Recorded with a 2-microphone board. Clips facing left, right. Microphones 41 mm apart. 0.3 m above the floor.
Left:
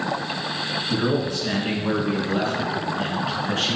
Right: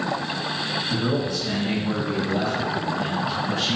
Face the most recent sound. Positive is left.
turn(degrees=60)  # may be behind; listen again after turning